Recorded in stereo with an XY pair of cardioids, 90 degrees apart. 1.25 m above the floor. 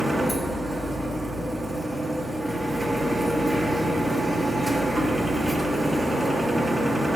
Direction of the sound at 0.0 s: 5° left.